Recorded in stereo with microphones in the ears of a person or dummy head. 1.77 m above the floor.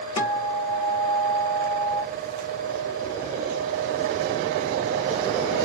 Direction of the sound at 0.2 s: 35° left (ahead or behind).